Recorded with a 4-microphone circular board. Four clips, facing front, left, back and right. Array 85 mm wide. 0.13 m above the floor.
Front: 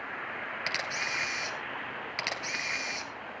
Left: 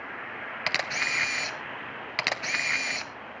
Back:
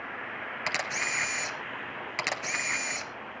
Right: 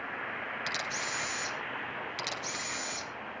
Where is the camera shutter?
105° left, 1.3 m.